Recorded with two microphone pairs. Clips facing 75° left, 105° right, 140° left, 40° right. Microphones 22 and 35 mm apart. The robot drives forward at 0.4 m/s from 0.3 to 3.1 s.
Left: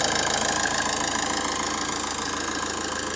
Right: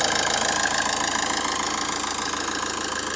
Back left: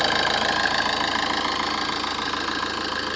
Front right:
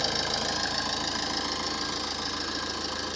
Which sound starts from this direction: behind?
An engine running, at 0.0 s.